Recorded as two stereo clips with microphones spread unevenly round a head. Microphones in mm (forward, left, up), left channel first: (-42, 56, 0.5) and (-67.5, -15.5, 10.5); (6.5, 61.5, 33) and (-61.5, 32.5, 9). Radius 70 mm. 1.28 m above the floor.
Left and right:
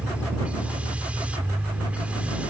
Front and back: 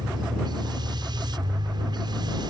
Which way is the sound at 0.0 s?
Straight behind.